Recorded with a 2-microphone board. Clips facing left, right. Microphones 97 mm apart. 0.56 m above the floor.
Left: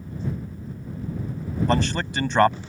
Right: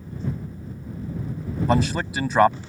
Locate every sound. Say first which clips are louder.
1.7 s a man speaking: right 2 dB; 5° right (ahead or behind)